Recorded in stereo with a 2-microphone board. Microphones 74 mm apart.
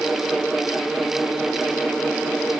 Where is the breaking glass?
I don't hear breaking glass.